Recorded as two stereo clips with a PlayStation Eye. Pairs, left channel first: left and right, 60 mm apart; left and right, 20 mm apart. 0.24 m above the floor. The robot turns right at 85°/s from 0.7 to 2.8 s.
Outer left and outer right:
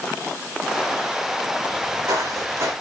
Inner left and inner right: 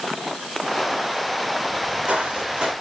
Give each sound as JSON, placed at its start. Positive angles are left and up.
{"t": 1.7, "sound": "footsteps", "side_deg": -55, "distance_m": 7.0}